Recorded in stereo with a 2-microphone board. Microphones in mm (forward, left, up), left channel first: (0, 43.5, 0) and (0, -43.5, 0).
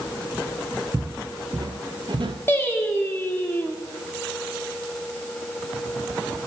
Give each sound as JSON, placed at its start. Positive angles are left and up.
{"t": 0.9, "sound": "footsteps", "side_deg": -35, "distance_m": 1.1}
{"t": 2.5, "sound": "singing", "side_deg": 25, "distance_m": 1.2}